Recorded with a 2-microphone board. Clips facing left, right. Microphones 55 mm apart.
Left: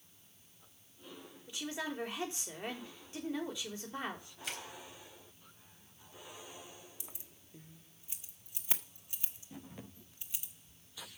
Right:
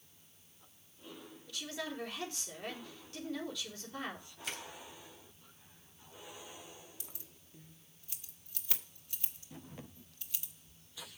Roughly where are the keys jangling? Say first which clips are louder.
Left 1 dB; left.